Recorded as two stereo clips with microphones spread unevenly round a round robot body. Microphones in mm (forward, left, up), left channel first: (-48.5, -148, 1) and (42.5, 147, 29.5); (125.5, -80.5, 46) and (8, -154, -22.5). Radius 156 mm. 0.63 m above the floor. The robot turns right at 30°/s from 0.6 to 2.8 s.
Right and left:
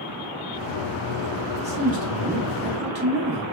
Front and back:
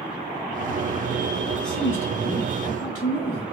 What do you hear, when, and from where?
1.6 s a man speaking: 10° left, 0.8 m; by 3.4 s 50° left, 0.8 m